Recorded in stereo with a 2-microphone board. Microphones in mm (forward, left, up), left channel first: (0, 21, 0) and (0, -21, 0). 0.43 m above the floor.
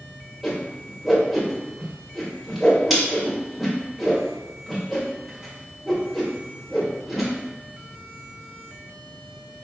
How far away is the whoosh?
About 1.5 m.